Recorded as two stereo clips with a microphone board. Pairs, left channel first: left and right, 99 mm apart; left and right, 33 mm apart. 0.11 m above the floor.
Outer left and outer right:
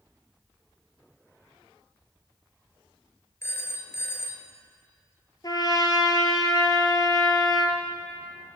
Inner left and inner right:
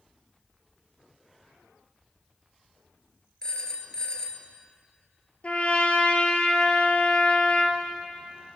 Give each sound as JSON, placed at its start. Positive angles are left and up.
{"t": 3.4, "sound": "a phone ringing", "side_deg": 25, "distance_m": 1.0}
{"t": 5.4, "sound": "a trumpet", "side_deg": 45, "distance_m": 1.4}